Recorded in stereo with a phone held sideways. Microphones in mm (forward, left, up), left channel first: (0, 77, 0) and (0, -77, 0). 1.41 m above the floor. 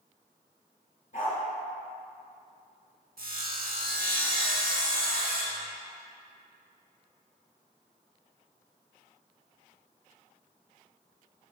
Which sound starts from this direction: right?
Sawing, at 3.2 s.